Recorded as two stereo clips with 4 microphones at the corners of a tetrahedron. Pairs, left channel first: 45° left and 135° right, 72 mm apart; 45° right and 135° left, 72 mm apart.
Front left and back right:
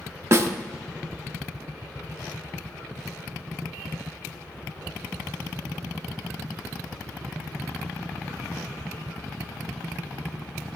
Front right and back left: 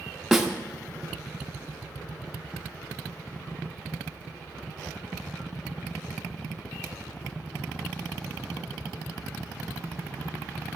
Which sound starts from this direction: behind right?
A snare drum, at 0.3 s.